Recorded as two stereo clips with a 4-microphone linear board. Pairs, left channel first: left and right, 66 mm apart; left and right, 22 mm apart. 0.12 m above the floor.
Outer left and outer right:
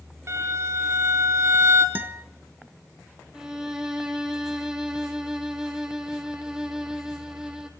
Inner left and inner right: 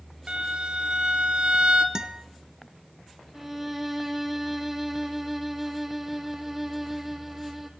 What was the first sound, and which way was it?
A violin, 45° right (ahead or behind).